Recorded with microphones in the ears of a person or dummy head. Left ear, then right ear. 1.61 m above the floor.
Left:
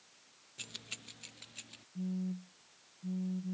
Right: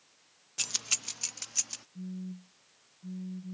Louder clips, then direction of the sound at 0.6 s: Right 13 dB; 40° right (ahead or behind).